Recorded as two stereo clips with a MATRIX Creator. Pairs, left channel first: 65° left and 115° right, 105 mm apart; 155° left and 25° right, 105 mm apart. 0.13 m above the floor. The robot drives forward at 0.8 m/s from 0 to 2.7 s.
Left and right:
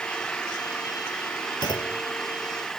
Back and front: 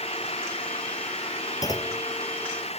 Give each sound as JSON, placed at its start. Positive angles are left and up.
{"t": 0.0, "sound": "an engine running", "azimuth_deg": 150}
{"t": 1.6, "sound": "a clunk", "azimuth_deg": 105}